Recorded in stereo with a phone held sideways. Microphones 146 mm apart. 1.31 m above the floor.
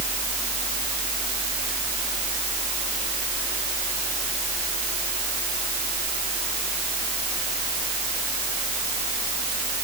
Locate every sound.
Only background noise.